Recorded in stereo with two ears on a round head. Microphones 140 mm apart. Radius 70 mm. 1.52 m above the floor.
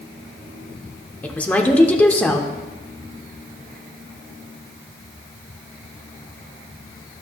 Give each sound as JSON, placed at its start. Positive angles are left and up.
{"t": 1.2, "sound": "a woman speaking", "side_deg": 10, "distance_m": 0.8}